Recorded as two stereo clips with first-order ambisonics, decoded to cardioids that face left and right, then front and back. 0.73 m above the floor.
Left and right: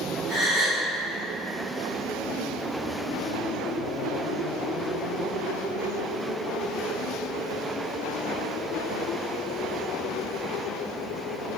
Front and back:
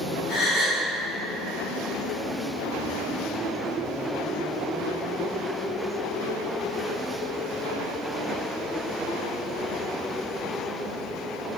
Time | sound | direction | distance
0.3 | a gasp | 30° right | 1.4 m